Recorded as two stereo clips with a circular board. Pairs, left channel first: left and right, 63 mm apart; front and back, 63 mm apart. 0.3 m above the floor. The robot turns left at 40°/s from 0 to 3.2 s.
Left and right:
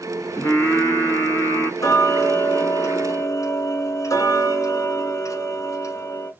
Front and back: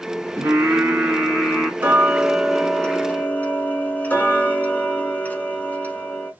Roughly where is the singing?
Behind left.